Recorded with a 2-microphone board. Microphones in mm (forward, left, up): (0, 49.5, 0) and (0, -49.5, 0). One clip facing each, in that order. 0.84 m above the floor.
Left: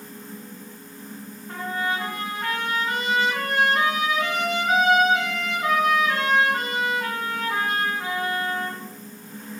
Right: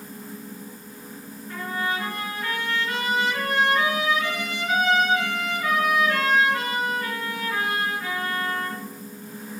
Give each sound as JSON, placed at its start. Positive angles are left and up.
{"t": 1.5, "sound": "a trumpet", "side_deg": 65, "distance_m": 3.0}